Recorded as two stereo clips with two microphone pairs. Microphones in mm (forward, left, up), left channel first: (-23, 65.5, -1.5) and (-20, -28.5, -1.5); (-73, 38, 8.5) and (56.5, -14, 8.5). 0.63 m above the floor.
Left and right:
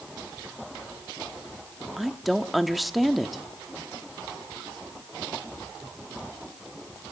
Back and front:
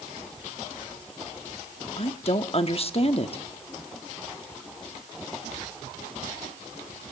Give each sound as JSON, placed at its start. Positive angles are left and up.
{"t": 2.0, "sound": "a woman speaking", "azimuth_deg": 180, "distance_m": 0.9}